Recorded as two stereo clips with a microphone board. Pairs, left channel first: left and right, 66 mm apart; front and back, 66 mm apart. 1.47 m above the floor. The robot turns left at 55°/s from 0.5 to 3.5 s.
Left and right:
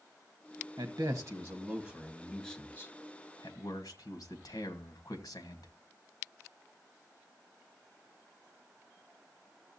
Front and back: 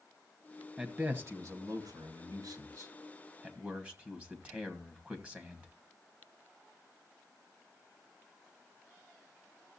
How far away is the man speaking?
About 1.5 m.